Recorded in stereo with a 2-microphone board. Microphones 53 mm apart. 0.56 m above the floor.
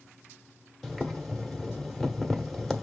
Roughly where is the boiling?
Centre.